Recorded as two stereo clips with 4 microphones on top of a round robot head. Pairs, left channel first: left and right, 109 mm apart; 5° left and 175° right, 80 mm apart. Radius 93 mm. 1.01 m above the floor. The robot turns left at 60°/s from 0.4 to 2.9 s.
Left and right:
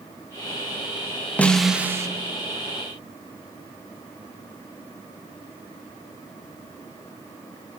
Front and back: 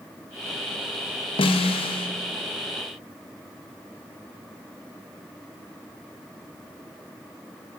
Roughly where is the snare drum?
Ahead.